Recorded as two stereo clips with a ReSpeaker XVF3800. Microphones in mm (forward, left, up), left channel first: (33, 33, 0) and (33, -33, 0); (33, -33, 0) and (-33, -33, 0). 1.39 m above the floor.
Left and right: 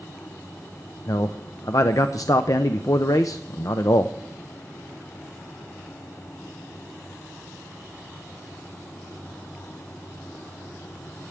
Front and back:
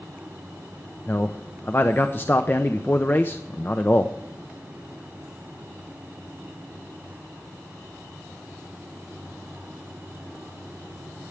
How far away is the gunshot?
No gunshot in this recording.